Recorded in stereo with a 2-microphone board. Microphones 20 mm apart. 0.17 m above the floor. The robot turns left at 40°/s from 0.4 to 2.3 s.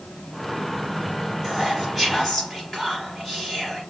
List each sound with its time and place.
1.4 s whispering: 165° right, 2.5 m; by 3.8 s 160° left, 2.5 m